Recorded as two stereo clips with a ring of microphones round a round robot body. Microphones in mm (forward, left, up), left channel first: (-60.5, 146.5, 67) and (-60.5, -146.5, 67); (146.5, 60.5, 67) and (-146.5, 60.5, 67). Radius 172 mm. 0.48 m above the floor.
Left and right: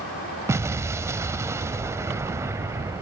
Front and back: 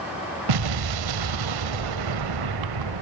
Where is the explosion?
170° right, 0.7 m.